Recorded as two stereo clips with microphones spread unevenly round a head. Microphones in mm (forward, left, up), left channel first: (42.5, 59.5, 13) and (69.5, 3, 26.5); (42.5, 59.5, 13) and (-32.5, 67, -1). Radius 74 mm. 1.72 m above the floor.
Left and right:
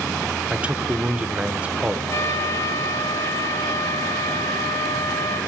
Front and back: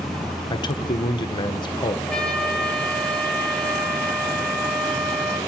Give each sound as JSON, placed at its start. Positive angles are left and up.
{"t": 0.5, "sound": "a man speaking", "azimuth_deg": 5, "distance_m": 1.6}
{"t": 2.1, "sound": "a trumpet", "azimuth_deg": 70, "distance_m": 5.5}